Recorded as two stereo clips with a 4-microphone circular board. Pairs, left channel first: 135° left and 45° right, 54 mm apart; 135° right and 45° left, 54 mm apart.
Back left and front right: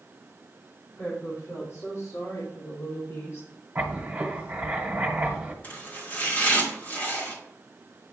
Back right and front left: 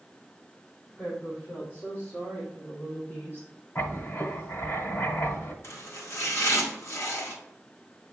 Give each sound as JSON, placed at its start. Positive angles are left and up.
{"t": 1.0, "sound": "a woman speaking", "azimuth_deg": 160, "distance_m": 3.5}
{"t": 3.8, "sound": "writing", "azimuth_deg": -105, "distance_m": 1.5}
{"t": 5.6, "sound": "chopping", "azimuth_deg": -170, "distance_m": 2.0}